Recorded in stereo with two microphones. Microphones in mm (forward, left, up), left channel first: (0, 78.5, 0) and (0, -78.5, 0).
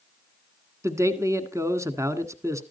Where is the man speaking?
20° right (ahead or behind), 1.2 m.